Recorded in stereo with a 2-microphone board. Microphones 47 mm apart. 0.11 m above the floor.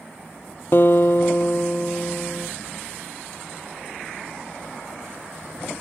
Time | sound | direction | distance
0.7 | a guitar | 50° left (ahead or behind) | 0.8 m